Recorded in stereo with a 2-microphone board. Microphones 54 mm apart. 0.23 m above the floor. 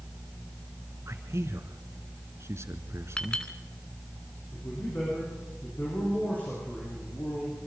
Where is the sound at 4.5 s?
35° left (ahead or behind), 10 m.